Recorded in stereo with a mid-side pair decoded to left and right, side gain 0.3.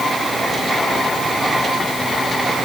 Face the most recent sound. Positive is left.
No sound to turn to.